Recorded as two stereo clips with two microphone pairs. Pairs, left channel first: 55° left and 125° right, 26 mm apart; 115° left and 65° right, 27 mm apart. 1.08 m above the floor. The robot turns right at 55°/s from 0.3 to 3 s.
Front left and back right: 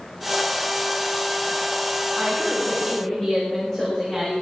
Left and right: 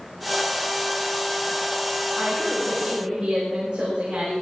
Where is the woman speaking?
60° right, 4.5 m; by 4.3 s 10° right, 4.5 m.